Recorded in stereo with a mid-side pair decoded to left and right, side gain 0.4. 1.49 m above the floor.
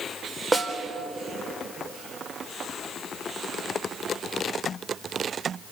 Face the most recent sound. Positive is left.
turn(degrees=-20)